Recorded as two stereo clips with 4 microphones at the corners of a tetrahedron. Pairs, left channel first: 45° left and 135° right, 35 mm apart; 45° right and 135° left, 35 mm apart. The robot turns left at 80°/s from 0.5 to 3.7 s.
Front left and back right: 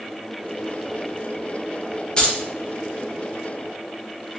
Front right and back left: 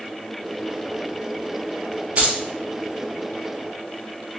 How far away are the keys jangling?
About 0.5 m.